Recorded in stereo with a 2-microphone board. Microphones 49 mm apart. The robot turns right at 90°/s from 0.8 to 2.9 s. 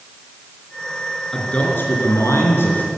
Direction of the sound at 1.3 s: 5° left.